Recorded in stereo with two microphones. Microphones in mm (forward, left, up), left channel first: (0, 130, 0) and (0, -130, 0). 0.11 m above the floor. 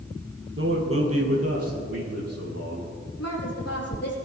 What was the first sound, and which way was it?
A man speaking, 50° right (ahead or behind).